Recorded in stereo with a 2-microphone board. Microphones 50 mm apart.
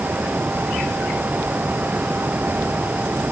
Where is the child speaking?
No child speaking in this recording.